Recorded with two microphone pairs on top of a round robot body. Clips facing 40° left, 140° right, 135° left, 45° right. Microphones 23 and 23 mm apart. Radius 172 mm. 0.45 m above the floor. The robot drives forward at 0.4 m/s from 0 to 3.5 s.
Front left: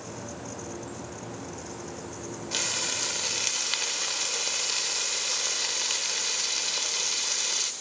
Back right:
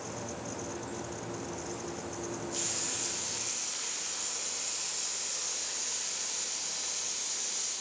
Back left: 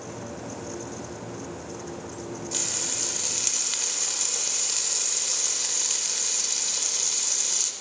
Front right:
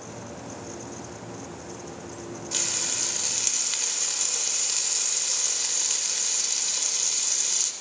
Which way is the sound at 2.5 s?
30° left.